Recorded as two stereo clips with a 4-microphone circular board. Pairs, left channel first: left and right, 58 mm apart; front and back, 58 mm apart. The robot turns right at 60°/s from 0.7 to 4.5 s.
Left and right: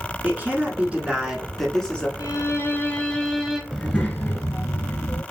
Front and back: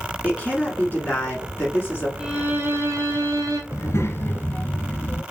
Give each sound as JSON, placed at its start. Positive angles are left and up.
{"t": 0.2, "sound": "a woman speaking", "azimuth_deg": -50, "distance_m": 1.4}
{"t": 2.2, "sound": "a violin", "azimuth_deg": 105, "distance_m": 1.2}
{"t": 3.7, "sound": "a child speaking", "azimuth_deg": 0, "distance_m": 1.0}